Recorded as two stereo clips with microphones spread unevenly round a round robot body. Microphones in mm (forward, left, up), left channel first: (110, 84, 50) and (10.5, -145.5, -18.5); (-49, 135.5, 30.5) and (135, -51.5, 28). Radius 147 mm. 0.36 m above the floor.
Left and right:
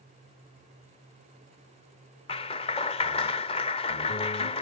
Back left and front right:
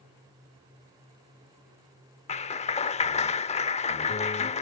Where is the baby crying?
I don't hear a baby crying.